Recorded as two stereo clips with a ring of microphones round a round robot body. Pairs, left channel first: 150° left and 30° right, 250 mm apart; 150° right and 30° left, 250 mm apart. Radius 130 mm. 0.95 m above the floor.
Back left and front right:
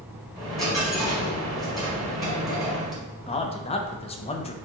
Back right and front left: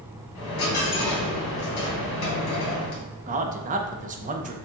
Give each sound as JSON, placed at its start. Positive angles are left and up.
{"t": 0.3, "sound": "a dropped coin", "azimuth_deg": -120, "distance_m": 1.6}
{"t": 3.3, "sound": "a man speaking", "azimuth_deg": 85, "distance_m": 0.6}